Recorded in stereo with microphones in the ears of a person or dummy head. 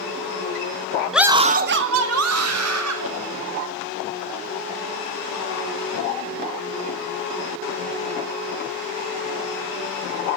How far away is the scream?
About 0.8 m.